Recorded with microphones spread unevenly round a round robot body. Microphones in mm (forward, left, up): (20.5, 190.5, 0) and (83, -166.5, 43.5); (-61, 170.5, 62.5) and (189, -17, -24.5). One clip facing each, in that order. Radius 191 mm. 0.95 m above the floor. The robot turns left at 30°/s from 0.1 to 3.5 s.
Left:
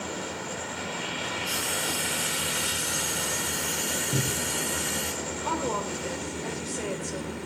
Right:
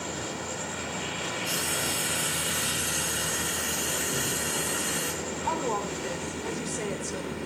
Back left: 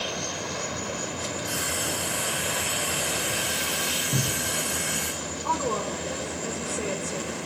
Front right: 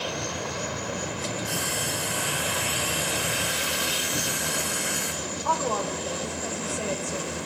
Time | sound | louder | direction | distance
1.4 | frying | even, even | 95° right | 6 m
4.1 | a cupboard door | left 1 dB, back left 1 dB | 165° left | 0.8 m
5.4 | a woman speaking | left 1 dB, even | 145° right | 4 m